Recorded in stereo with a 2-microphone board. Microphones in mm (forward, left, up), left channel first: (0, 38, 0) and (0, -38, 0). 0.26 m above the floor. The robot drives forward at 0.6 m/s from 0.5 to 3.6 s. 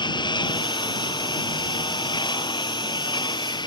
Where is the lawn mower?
85° left; by 3.7 s 80° left.